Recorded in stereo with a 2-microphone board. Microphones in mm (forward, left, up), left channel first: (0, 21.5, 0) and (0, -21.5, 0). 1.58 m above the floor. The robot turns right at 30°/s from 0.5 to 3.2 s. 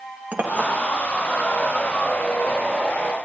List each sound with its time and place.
0.3 s a clink: 45° right (ahead or behind), 1.4 m; by 0.7 s 50° right (ahead or behind), 1.4 m